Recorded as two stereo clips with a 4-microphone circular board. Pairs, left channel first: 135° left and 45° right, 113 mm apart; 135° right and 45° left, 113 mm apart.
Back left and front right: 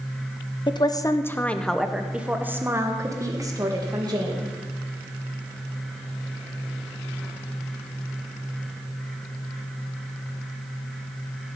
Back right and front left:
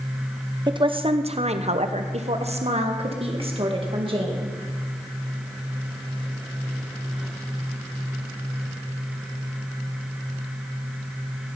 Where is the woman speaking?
90° left, 0.9 m; by 4.5 s 5° left, 2.5 m.